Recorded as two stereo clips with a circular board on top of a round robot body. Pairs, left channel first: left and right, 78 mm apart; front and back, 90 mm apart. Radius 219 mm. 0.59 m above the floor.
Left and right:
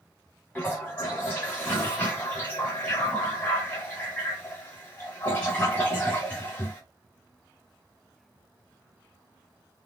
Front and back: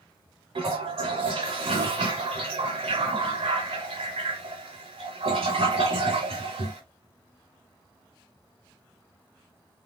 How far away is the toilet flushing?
About 1.0 m.